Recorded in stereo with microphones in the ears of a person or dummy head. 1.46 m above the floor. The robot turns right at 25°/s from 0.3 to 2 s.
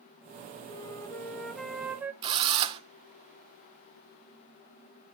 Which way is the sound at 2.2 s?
30° right (ahead or behind).